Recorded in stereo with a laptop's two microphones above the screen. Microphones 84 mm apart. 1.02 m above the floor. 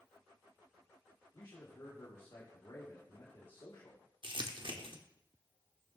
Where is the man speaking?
60° left (ahead or behind), 2 m.